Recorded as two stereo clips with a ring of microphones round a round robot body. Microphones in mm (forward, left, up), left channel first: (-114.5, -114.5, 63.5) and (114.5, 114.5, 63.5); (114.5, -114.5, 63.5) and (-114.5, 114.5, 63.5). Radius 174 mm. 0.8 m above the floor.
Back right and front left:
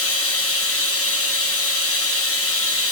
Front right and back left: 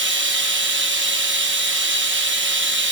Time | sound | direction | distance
0.0 | running water | 175° right | 1.2 m